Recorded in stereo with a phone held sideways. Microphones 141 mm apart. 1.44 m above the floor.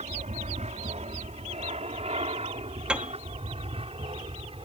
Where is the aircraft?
55° right (ahead or behind); by 4.7 s 40° right (ahead or behind).